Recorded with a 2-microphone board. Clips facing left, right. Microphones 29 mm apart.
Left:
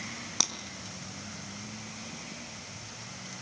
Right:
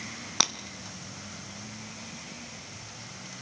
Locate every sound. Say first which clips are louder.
0.4 s breaking glass: right 5 dB; 25° right (ahead or behind), 1.4 m